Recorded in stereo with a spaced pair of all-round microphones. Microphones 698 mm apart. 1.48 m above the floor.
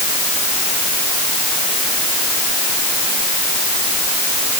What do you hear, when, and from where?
Only background noise.